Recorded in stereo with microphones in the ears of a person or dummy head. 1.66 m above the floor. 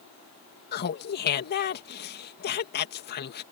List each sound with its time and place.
0.7 s laughter: 50° left (ahead or behind)